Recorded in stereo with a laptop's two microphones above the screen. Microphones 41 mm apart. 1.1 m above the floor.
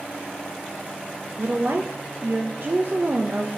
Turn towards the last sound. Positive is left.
turn(degrees=-60)  # may be behind; listen again after turning